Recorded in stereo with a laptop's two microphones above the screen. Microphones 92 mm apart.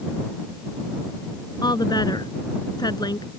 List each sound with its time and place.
1.6 s a woman speaking: 50° left (ahead or behind)